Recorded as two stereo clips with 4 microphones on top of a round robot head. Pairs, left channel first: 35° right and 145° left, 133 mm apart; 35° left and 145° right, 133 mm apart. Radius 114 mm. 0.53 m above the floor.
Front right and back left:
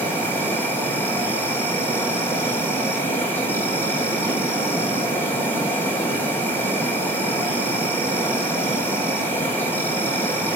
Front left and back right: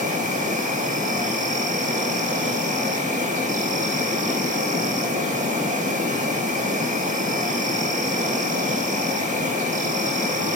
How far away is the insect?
About 4.5 m.